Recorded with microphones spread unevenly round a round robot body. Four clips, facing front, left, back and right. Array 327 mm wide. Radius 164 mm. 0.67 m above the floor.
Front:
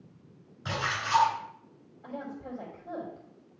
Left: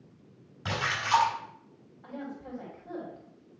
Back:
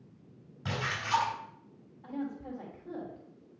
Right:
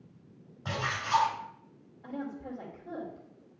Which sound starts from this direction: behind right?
A woman speaking, at 2.0 s.